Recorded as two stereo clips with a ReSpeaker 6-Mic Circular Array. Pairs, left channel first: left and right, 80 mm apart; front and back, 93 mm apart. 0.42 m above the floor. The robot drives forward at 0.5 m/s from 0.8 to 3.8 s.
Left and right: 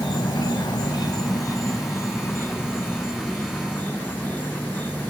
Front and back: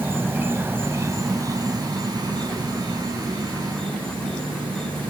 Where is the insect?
115° left, 0.7 m; by 5.1 s 160° left, 1.9 m.